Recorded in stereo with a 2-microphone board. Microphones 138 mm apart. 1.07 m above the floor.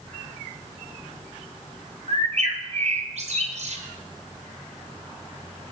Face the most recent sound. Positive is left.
turn(degrees=-55)  # may be behind; listen again after turning